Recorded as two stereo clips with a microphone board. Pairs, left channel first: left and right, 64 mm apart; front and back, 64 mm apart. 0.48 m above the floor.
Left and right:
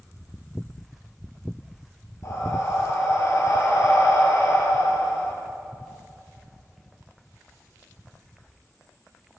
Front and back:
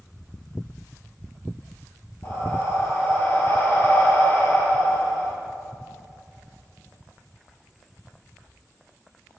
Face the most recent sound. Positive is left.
turn(degrees=50)